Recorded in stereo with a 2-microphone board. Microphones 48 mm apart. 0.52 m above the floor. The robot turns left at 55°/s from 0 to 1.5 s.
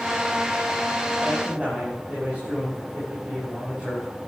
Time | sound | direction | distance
1.2 | a man speaking | 10° right (ahead or behind) | 6 m